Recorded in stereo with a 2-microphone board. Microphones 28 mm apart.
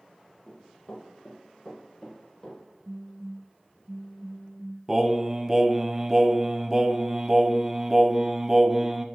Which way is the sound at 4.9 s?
15° right (ahead or behind).